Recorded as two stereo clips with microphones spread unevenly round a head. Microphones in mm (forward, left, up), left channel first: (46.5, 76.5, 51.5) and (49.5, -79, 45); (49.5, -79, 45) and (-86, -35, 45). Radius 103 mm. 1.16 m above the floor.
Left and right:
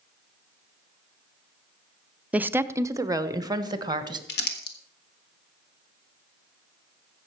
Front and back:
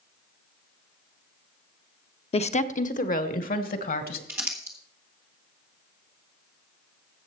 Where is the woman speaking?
15° right, 0.6 m; by 4.2 s 25° right, 1.7 m.